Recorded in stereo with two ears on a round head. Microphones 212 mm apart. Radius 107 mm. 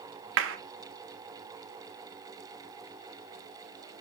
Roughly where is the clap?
Right.